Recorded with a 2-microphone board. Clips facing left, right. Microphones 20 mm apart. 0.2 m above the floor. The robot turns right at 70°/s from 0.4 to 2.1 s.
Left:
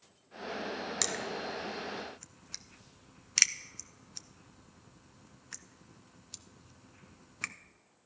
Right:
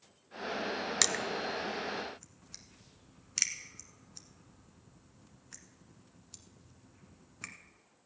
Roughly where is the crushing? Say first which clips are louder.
Right 4 dB; right.